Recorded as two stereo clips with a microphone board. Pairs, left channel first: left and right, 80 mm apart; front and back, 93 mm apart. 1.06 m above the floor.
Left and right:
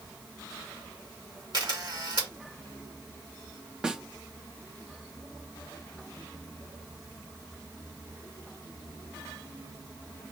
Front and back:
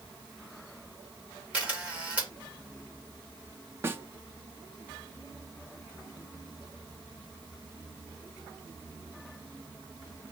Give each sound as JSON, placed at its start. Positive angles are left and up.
{"t": 1.5, "sound": "a camera shutter", "azimuth_deg": -105, "distance_m": 2.0}
{"t": 3.8, "sound": "a snare drum", "azimuth_deg": -160, "distance_m": 0.6}